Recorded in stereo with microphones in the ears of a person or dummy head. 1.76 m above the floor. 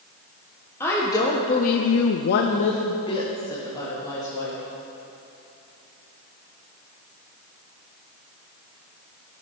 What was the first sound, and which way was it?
A woman speaking, 10° left (ahead or behind).